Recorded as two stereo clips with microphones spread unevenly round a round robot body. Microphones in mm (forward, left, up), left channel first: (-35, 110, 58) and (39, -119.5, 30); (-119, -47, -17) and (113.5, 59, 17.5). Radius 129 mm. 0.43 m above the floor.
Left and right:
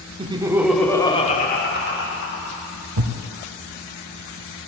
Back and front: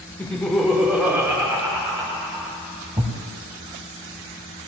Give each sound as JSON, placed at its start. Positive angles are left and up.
{"t": 0.2, "sound": "laughter", "azimuth_deg": -90, "distance_m": 1.1}
{"t": 3.0, "sound": "a thud", "azimuth_deg": -50, "distance_m": 1.1}